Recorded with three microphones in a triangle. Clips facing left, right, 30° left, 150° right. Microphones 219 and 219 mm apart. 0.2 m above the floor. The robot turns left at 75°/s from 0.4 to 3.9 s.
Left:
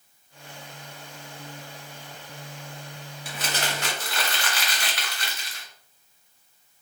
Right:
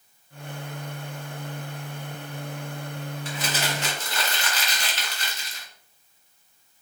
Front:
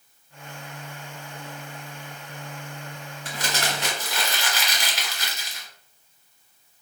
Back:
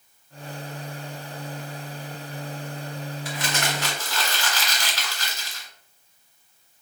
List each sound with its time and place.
3.2 s crumpling: 15° left, 1.1 m; by 5.7 s 35° right, 1.1 m